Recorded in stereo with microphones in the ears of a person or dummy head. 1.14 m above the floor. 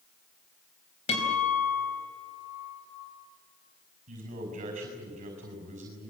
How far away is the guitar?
About 5.5 m.